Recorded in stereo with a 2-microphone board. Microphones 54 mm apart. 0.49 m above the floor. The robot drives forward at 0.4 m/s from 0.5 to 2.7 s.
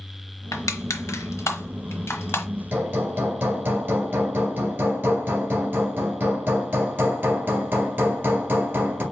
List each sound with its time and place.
0.5 s crushing: 85° left, 0.8 m; by 2.5 s 45° left (ahead or behind), 1.1 m
2.7 s hammering: 45° right (ahead or behind), 2 m